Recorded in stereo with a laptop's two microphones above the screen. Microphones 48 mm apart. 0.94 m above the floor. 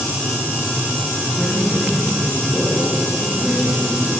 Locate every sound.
1.3 s a man speaking: 5° right (ahead or behind), 8 m